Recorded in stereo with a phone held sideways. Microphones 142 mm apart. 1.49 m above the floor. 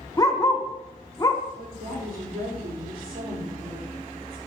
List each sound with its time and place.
0.2 s a dog barking: 25° left (ahead or behind), 1.1 m
1.6 s a woman speaking: 85° right, 4 m